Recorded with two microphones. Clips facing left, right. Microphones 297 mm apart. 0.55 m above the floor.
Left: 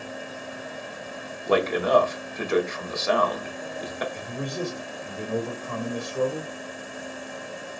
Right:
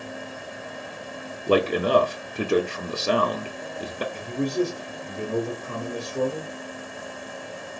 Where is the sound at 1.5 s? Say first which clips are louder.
Right 1 dB; 35° right (ahead or behind), 0.9 m.